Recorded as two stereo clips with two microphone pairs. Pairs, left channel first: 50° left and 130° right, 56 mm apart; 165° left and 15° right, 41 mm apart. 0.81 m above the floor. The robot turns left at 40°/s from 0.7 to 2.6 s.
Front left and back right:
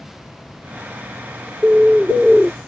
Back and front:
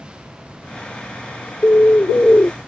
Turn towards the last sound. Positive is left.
turn(degrees=130)